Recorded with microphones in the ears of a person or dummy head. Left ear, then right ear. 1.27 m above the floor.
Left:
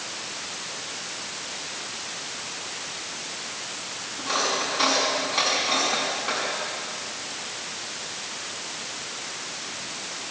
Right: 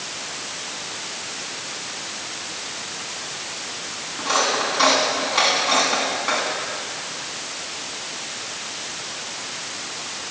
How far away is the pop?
I don't hear a pop.